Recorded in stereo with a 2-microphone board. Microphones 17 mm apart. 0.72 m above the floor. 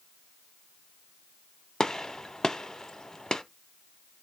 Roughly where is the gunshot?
Left.